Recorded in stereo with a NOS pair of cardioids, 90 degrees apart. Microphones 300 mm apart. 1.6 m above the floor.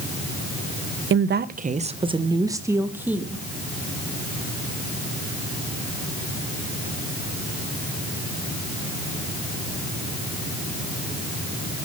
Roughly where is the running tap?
No running tap in this recording.